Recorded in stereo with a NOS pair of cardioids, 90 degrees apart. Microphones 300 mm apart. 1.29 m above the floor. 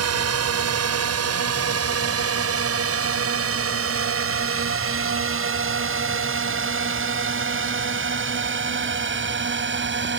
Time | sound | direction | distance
0.0 | a drone | 55° right | ?